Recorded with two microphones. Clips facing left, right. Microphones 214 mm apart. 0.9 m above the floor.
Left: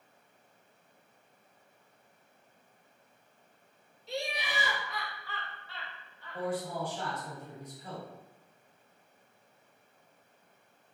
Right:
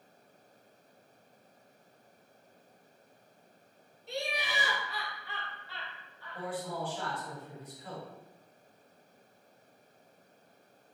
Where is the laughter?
55° right (ahead or behind), 1.0 m; by 6.4 s 25° left (ahead or behind), 0.8 m.